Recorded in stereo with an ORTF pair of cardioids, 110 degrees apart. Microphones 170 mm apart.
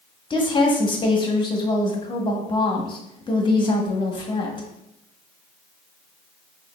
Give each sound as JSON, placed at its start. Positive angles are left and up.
{"t": 0.3, "sound": "a woman speaking", "azimuth_deg": 30, "distance_m": 1.0}